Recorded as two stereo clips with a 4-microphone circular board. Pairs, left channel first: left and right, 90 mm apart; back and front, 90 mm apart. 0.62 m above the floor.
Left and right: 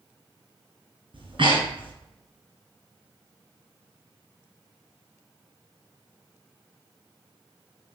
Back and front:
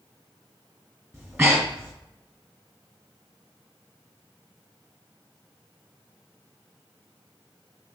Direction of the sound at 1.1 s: 65° right.